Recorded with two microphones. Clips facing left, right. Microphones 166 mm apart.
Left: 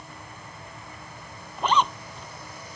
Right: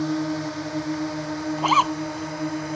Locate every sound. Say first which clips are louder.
0.0 s a drone: right 21 dB; 75° right (ahead or behind); by 2.8 s 65° right (ahead or behind)
1.6 s a zipper: left 1 dB; 5° right (ahead or behind)